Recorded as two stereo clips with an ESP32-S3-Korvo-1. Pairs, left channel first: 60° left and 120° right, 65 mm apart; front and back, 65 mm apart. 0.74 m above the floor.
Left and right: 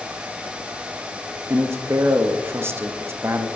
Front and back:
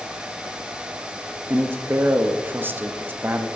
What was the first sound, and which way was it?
A man speaking, 145° right.